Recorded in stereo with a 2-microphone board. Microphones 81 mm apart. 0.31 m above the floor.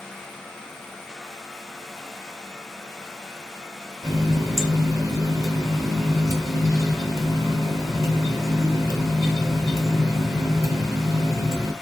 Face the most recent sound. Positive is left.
turn(degrees=-45)  # may be behind; listen again after turning